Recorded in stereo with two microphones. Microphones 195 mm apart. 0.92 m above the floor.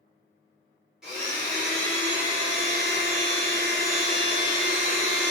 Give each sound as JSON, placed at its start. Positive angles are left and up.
{"t": 1.0, "sound": "a blender", "side_deg": 0, "distance_m": 1.0}